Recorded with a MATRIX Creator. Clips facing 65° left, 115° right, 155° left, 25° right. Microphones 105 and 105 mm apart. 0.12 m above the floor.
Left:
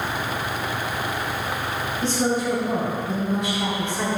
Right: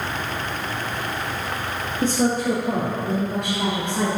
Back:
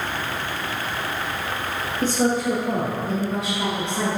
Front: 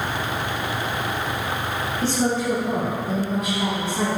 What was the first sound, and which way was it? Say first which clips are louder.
A woman speaking: right 3 dB, back 2 dB; 135° right.